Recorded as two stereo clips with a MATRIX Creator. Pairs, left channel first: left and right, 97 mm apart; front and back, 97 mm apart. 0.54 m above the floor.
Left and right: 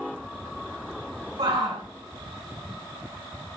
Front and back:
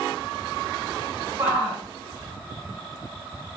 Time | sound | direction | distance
1.4 | a shout | 110° right | 6 m